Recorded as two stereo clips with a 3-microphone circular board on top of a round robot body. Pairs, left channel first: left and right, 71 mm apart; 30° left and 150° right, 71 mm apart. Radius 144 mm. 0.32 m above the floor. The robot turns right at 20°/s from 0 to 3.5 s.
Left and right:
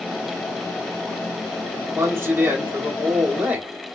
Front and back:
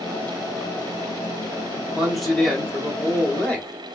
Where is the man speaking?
70° right, 1.6 m; by 3.7 s 35° right, 1.6 m.